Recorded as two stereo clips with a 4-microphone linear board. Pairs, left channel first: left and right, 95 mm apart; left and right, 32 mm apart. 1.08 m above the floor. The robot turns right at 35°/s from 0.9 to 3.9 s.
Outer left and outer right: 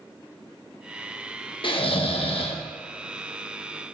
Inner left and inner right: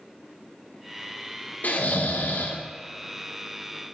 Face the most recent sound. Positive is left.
turn(degrees=145)